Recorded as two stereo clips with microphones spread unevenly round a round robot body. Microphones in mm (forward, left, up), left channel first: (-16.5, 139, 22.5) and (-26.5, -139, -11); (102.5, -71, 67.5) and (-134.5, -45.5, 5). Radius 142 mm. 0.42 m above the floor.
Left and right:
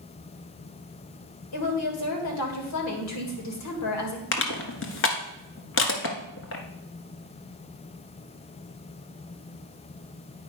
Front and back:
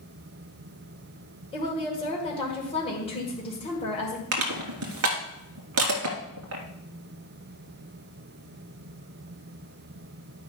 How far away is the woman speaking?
About 2 m.